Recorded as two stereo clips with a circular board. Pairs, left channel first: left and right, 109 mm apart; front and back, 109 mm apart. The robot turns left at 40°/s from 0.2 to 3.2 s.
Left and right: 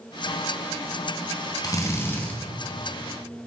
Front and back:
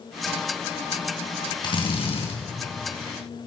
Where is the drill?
40° left, 3 m; by 2.4 s 10° left, 3 m.